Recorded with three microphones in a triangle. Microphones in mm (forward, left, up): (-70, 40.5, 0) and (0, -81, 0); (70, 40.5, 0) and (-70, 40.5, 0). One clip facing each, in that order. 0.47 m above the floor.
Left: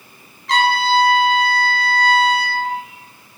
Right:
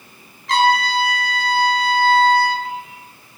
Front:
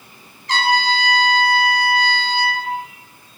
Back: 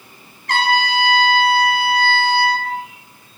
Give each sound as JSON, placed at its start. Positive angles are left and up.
{"t": 0.5, "sound": "a trumpet", "azimuth_deg": -150, "distance_m": 1.9}